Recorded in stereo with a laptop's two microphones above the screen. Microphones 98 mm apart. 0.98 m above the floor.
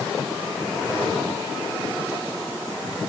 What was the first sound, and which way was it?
Only background noise.